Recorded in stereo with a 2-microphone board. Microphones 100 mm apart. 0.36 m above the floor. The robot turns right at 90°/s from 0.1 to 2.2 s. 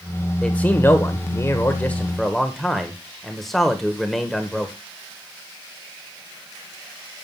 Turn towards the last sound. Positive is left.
turn(degrees=0)  # may be behind; listen again after turning